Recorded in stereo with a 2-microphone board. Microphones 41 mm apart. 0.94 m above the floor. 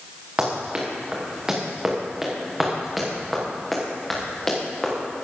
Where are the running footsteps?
25° right (ahead or behind), 4 m; by 4.9 s 20° left (ahead or behind), 4.5 m.